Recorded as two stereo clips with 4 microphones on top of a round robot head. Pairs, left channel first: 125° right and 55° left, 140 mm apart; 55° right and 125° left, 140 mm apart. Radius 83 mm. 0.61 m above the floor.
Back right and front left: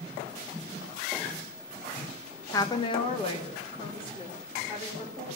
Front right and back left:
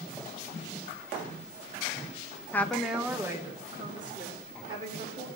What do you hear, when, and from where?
2.5 s a woman speaking: 105° right, 0.7 m; by 5.3 s straight behind, 2.5 m